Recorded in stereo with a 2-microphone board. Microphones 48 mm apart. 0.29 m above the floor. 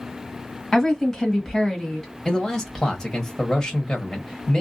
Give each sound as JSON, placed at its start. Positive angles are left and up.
{"t": 0.7, "sound": "a woman speaking", "side_deg": 5, "distance_m": 1.7}
{"t": 2.2, "sound": "a man speaking", "side_deg": 10, "distance_m": 1.4}